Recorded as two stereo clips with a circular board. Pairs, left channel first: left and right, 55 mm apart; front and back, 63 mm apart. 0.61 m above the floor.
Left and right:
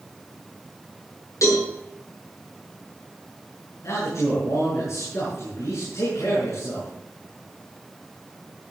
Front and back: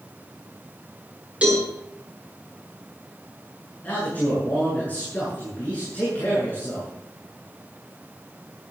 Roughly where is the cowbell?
Left.